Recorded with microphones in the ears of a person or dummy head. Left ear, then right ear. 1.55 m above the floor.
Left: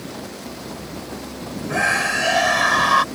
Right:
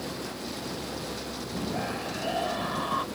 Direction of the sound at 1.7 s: 65° left (ahead or behind).